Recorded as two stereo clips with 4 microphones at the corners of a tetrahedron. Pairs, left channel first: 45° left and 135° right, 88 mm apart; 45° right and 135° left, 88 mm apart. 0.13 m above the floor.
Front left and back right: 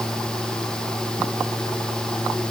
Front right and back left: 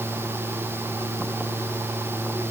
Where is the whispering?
I don't hear whispering.